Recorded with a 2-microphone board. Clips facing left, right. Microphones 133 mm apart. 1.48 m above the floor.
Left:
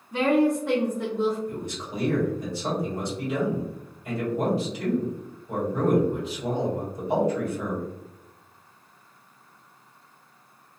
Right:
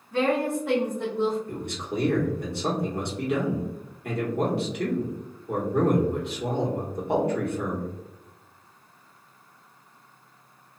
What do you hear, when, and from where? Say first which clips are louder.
0.1 s a woman speaking: left 3 dB; 15° left (ahead or behind), 0.9 m; by 1.4 s 30° right (ahead or behind), 1.0 m
1.5 s a man speaking: right 1 dB; 65° right (ahead or behind), 1.2 m